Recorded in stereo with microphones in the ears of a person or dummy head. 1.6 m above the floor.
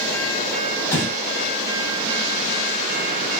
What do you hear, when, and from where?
0.9 s breathing: 15° left (ahead or behind), 1.3 m